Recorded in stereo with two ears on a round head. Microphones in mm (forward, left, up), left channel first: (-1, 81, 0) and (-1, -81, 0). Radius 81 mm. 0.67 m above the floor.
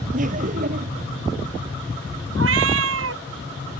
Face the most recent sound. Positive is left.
turn(degrees=-80)